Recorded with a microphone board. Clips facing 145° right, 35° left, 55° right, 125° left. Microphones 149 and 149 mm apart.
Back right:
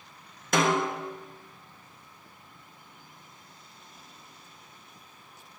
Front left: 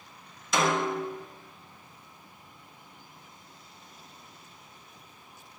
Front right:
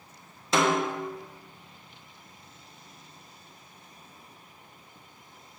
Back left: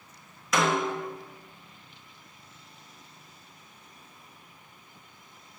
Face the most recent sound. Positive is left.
turn(degrees=-115)